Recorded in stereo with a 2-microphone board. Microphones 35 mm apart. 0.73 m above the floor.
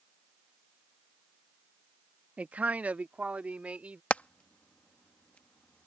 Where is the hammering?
40° left (ahead or behind).